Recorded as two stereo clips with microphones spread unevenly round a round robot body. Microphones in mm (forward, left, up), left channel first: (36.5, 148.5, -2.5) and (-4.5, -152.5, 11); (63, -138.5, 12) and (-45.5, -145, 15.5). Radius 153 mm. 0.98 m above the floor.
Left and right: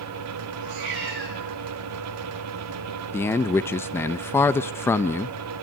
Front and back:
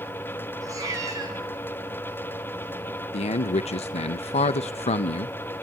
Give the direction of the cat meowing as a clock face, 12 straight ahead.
4 o'clock.